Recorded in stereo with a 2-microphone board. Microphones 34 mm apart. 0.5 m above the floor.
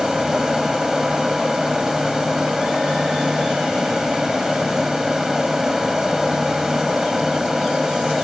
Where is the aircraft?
10° right (ahead or behind).